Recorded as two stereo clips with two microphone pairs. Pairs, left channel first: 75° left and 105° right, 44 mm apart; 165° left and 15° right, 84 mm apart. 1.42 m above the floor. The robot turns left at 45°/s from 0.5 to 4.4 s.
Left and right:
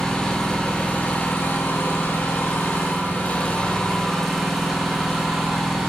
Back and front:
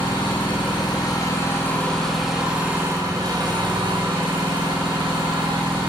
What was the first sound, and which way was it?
An engine running, 150° left.